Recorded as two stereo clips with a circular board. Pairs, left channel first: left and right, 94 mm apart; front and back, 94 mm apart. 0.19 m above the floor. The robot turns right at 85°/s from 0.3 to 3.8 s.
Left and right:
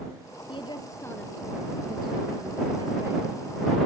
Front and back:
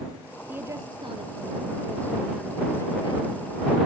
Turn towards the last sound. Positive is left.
turn(degrees=30)